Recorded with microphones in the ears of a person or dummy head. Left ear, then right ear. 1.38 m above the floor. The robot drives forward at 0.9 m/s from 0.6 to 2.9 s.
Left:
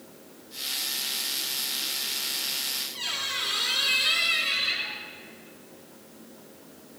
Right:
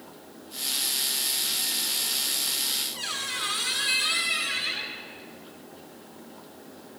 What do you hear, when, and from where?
2.9 s a squeak: 35° right (ahead or behind), 1.8 m